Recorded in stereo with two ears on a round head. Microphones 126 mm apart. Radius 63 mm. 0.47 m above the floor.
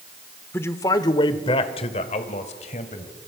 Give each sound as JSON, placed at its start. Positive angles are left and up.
{"t": 0.5, "sound": "a man speaking", "side_deg": 15, "distance_m": 1.1}